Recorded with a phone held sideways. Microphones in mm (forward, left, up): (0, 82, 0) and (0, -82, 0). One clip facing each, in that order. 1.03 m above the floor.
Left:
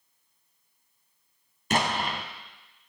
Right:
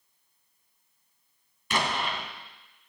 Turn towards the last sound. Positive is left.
turn(degrees=45)  # may be behind; listen again after turning